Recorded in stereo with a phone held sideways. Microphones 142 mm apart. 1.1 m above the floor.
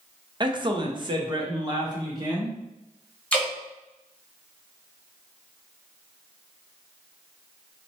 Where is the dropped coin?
No dropped coin in this recording.